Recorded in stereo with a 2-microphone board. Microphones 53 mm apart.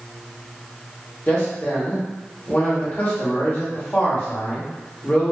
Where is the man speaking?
40° left (ahead or behind), 0.9 m.